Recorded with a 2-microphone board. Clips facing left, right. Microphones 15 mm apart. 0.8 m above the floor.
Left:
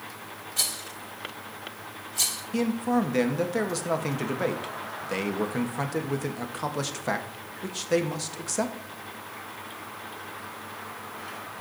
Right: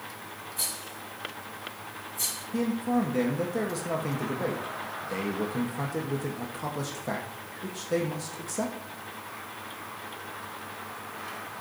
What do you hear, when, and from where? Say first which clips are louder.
0.6 s a rattle: left 6 dB; 60° left (ahead or behind), 2 m
2.5 s a man speaking: left 2 dB; 30° left (ahead or behind), 1.0 m